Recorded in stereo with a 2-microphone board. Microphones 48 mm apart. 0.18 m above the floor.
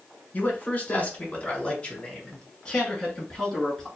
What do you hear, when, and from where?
0.3 s a man speaking: 35° left (ahead or behind), 1.5 m; by 3.9 s 10° left (ahead or behind), 2.5 m